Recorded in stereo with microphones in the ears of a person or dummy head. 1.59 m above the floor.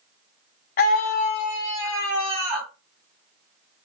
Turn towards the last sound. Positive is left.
turn(degrees=-10)  # may be behind; listen again after turning